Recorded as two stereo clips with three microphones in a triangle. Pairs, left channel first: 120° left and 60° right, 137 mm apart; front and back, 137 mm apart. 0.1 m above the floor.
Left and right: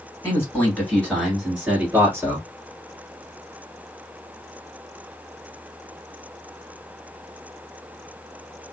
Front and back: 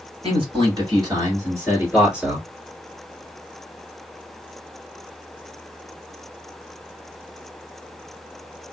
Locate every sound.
0.2 s a man speaking: straight behind, 2 m; by 2.5 s 95° right, 1.7 m